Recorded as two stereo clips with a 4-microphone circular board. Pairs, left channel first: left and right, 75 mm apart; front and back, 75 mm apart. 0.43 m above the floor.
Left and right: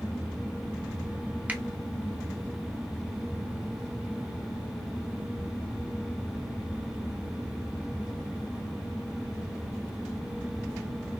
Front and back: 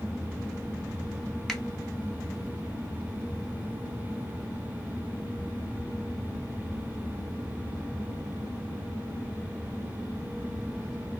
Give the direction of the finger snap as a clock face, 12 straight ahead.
2 o'clock.